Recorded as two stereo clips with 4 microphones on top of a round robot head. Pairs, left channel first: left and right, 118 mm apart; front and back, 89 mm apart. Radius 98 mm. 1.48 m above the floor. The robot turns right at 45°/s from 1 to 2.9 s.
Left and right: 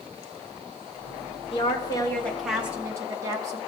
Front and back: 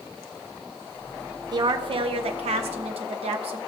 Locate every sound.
1.5 s a woman speaking: 140° left, 1.1 m; by 3.6 s 160° right, 1.1 m